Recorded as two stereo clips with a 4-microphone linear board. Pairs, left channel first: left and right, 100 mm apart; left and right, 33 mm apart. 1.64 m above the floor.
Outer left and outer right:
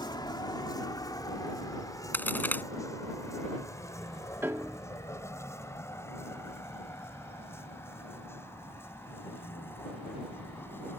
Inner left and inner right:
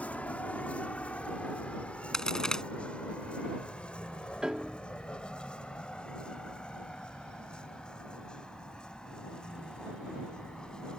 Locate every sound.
0.0 s a vehicle: 45° left (ahead or behind); by 11.0 s 20° left (ahead or behind)
2.1 s a crack: 15° left (ahead or behind)
4.4 s a piano: 25° right (ahead or behind)